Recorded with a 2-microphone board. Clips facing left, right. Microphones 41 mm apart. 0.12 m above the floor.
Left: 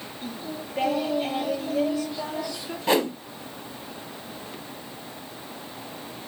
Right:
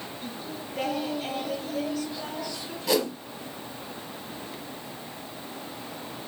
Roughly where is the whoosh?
Left.